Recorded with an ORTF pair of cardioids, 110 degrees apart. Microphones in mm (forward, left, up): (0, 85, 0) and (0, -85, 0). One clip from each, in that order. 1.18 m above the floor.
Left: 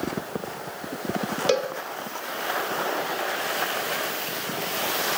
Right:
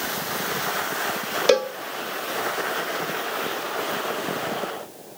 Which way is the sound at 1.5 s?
30° right.